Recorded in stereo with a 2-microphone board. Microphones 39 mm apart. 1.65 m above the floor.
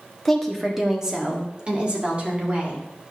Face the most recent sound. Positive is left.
turn(degrees=-40)  # may be behind; listen again after turning